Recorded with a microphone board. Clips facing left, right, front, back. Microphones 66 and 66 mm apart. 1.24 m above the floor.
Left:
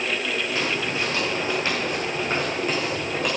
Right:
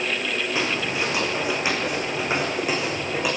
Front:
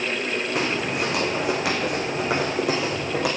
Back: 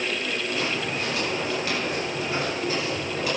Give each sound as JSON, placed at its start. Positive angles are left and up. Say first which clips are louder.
{"t": 0.6, "sound": "footsteps", "louder": "right 1 dB, front 3 dB", "azimuth_deg": -20, "distance_m": 5.0}